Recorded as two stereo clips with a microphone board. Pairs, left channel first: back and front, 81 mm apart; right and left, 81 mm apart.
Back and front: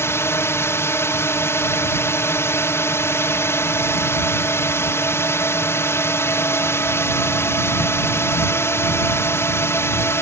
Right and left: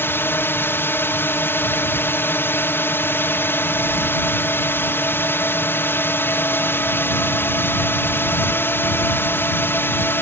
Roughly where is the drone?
Behind right.